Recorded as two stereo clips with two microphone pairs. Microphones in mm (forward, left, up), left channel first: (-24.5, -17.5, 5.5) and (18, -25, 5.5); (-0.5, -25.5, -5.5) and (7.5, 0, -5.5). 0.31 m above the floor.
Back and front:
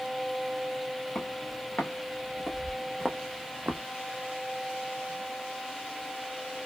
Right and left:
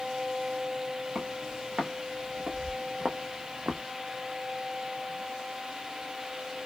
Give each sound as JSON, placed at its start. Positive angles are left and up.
{"t": 1.1, "sound": "footsteps", "azimuth_deg": 120, "distance_m": 1.9}